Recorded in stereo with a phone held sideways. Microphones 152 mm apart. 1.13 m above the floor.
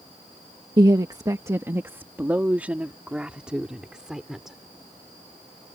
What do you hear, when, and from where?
0.8 s a woman speaking: 30° right (ahead or behind); by 4.6 s 5° right (ahead or behind)